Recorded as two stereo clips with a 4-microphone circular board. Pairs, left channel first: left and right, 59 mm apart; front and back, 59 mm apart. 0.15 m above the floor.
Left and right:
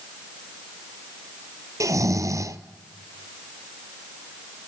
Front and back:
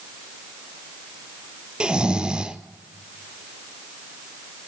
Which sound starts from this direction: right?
Snoring, at 1.8 s.